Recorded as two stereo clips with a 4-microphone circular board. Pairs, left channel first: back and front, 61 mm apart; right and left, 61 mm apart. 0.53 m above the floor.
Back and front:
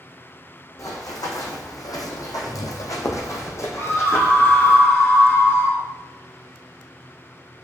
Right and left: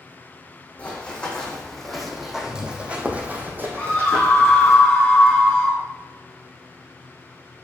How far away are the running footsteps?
About 1.7 m.